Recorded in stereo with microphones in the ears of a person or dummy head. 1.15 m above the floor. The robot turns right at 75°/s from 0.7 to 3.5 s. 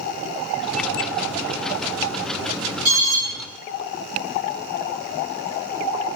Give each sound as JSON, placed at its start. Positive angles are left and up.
{"t": 2.9, "sound": "an alarm", "side_deg": -50, "distance_m": 2.5}